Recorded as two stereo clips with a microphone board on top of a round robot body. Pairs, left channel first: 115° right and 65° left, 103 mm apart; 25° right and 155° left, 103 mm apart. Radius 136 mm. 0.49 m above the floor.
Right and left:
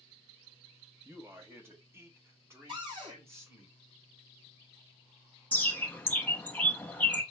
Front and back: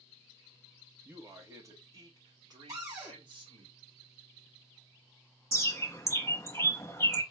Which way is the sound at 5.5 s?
55° right.